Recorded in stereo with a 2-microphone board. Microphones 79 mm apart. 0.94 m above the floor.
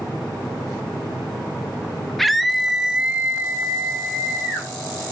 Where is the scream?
Centre (ahead or behind), 1.3 m; by 4.7 s 25° right (ahead or behind), 1.8 m.